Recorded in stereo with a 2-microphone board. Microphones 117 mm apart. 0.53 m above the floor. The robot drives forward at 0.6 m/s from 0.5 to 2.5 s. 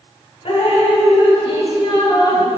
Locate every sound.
0.5 s dripping: 60° left (ahead or behind), 1.7 m; by 2.5 s 45° left (ahead or behind), 2 m